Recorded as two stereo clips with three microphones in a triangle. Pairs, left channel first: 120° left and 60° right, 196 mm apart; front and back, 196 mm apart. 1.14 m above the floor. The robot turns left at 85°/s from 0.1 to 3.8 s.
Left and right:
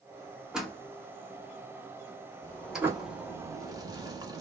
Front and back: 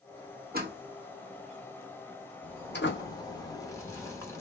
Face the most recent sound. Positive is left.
turn(degrees=-45)